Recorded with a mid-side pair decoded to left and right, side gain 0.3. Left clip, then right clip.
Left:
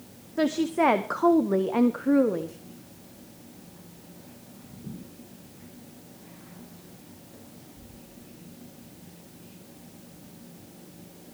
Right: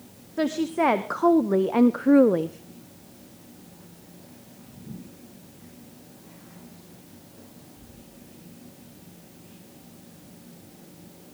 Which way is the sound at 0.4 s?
5° left.